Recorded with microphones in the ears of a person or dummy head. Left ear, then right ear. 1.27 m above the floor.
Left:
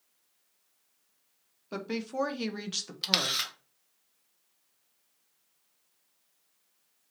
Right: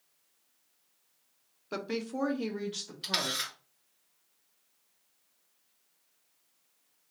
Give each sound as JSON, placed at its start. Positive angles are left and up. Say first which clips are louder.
{"t": 1.7, "sound": "a woman speaking", "louder": "left 1 dB", "side_deg": -15, "distance_m": 0.9}
{"t": 3.0, "sound": "a camera shutter", "louder": "left 4 dB", "side_deg": 30, "distance_m": 1.3}